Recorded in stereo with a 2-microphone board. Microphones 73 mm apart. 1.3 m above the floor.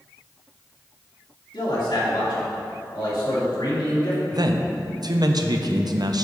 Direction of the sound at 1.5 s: 85° left.